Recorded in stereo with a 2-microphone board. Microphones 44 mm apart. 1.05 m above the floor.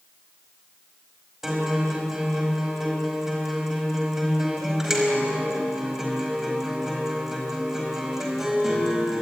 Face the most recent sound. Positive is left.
turn(degrees=-10)  # may be behind; listen again after turning